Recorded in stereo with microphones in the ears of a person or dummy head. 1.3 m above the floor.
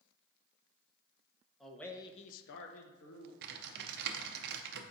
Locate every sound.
1.6 s a man speaking: 10° right (ahead or behind), 0.9 m; by 3.3 s 75° left (ahead or behind), 1.1 m
3.4 s typing on a keyboard: 70° right (ahead or behind), 0.6 m